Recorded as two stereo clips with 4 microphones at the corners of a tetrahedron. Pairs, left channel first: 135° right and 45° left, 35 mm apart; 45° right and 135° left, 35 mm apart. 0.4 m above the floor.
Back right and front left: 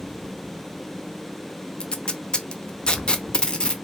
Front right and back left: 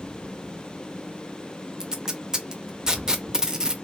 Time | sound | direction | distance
1.8 | tape being pulled | 170° right | 0.6 m